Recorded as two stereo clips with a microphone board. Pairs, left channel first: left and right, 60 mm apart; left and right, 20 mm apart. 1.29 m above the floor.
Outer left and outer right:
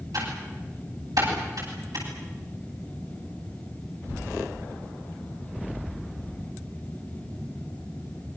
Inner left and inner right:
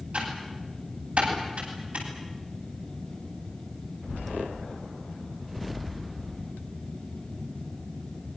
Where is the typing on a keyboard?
85° right, 10 m.